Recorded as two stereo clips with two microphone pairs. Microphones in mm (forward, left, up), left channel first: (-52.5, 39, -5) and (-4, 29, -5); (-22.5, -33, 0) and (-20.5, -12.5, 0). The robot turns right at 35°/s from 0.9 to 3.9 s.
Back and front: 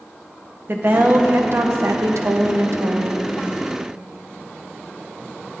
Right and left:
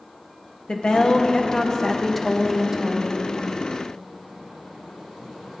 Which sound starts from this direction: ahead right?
A woman speaking, at 0.7 s.